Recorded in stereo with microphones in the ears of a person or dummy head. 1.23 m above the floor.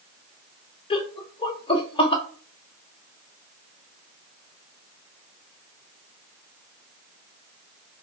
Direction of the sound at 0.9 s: 20° left (ahead or behind).